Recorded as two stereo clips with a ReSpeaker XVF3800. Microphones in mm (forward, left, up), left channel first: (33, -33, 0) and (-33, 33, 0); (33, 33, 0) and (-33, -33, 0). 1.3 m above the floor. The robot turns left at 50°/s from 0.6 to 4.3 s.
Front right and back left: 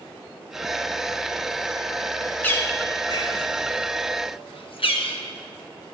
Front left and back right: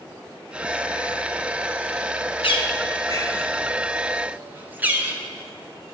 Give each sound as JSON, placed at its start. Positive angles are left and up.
{"t": 2.4, "sound": "a bird", "azimuth_deg": 30, "distance_m": 1.1}